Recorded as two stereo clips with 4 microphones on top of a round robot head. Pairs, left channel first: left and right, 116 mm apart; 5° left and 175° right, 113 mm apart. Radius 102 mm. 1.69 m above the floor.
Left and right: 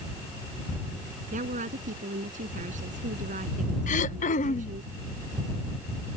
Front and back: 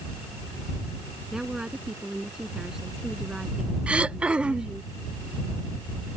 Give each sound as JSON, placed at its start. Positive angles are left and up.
{"t": 1.3, "sound": "a woman speaking", "azimuth_deg": -90}
{"t": 3.9, "sound": "throat clearing", "azimuth_deg": 105}